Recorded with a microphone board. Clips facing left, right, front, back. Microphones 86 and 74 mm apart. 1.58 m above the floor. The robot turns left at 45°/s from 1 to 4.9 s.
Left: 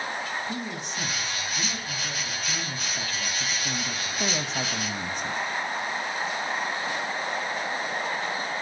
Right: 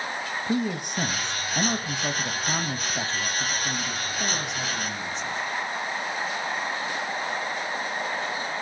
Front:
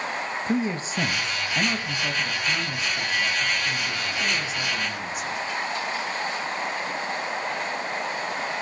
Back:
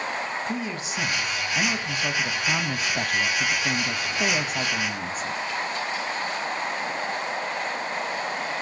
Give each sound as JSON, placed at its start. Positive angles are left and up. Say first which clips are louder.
{"t": 0.5, "sound": "a man speaking", "louder": "right 6 dB, front 4 dB", "azimuth_deg": -55, "distance_m": 0.6}